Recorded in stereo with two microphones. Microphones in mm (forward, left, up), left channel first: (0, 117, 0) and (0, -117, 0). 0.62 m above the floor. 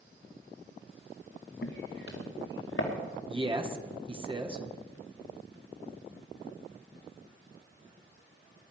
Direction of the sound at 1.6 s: 50° left (ahead or behind).